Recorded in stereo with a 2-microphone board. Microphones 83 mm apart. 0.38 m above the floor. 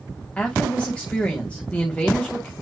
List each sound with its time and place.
0.4 s a woman speaking: 15° left (ahead or behind), 2.5 m